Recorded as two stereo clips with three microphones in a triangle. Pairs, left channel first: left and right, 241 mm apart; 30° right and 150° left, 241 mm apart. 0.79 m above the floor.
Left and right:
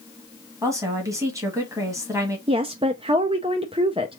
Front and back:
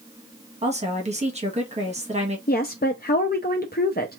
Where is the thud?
I don't hear a thud.